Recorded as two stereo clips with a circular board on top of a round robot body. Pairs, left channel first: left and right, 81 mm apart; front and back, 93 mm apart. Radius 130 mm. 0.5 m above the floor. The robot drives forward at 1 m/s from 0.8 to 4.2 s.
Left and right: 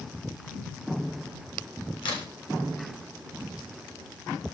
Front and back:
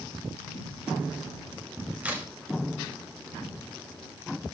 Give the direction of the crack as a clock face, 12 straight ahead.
9 o'clock.